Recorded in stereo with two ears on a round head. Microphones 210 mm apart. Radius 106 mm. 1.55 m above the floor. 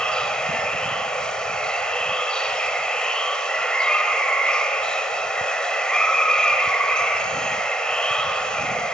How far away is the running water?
About 1.4 m.